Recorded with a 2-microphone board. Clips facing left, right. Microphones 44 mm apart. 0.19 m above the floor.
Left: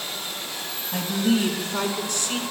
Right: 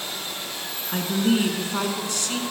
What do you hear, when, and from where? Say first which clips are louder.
0.9 s a woman speaking: right 1 dB; 35° right (ahead or behind), 2.0 m; by 2.4 s 15° left (ahead or behind), 1.7 m